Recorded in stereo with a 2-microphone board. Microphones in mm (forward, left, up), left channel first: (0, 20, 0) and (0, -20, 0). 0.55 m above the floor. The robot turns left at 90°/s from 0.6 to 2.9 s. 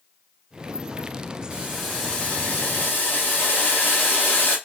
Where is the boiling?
150° right, 1.1 m; by 4.6 s 85° left, 1.1 m.